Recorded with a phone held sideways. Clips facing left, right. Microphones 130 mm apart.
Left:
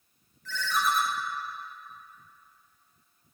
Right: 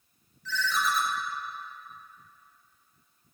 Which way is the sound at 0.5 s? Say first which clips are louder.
Left 1 dB; 50° left (ahead or behind).